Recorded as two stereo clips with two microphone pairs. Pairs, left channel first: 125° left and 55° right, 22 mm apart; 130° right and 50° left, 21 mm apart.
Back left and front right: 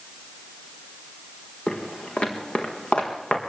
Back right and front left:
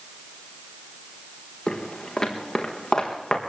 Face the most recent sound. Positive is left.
turn(degrees=165)